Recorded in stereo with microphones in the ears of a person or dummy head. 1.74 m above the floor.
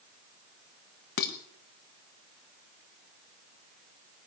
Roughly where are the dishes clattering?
Left.